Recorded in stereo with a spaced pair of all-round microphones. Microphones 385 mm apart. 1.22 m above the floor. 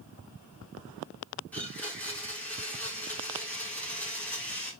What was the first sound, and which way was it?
A blender, 5° left (ahead or behind).